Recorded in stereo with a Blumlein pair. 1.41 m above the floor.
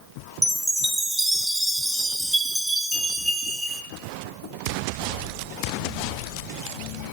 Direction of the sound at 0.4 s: 5° right.